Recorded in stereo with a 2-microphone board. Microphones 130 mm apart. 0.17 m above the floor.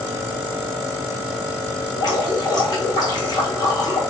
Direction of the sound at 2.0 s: 35° left (ahead or behind).